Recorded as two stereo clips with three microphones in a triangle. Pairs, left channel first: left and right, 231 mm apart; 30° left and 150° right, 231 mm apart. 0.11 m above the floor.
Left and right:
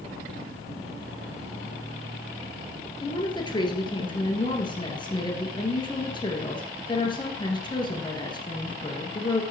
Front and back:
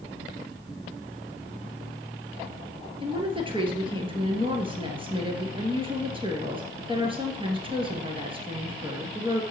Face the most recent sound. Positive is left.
turn(degrees=155)